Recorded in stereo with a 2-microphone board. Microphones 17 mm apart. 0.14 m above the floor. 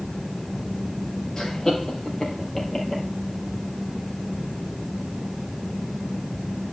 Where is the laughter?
30° left (ahead or behind), 4 m; by 3.0 s 15° left (ahead or behind), 5.5 m.